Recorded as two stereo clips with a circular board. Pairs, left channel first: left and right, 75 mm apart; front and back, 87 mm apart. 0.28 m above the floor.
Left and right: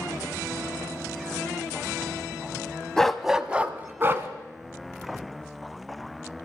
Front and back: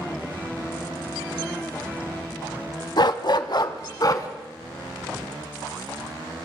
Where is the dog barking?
10° left, 0.8 m; by 4.3 s 40° right, 1.3 m.